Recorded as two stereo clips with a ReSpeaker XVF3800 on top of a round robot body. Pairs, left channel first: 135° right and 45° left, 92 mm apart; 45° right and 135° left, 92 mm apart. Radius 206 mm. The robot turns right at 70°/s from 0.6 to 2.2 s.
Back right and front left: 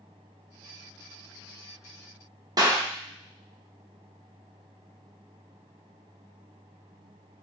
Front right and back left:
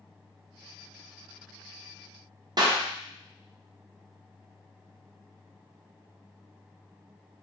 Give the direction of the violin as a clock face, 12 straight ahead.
I don't hear a violin.